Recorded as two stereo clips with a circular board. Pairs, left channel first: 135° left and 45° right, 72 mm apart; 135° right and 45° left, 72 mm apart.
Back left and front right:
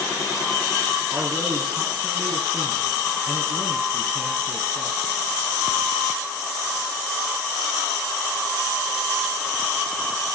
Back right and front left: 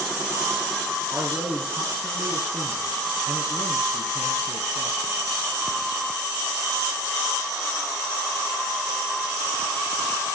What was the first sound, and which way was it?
A man speaking, 10° left.